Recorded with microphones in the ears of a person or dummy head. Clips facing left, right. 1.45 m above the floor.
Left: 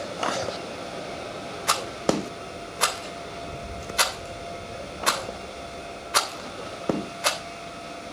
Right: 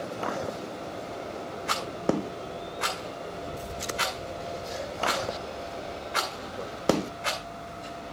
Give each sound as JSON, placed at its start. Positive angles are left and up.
{"t": 1.7, "sound": "a rattle", "side_deg": 65, "distance_m": 3.0}